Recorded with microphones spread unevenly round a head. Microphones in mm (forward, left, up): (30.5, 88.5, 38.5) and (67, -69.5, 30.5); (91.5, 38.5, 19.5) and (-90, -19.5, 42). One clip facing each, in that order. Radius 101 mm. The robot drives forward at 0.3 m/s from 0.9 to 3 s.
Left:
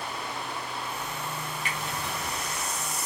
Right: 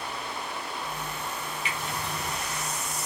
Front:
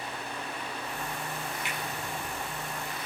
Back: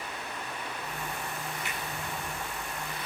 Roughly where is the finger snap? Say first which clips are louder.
Right 1 dB, front 1 dB; ahead left.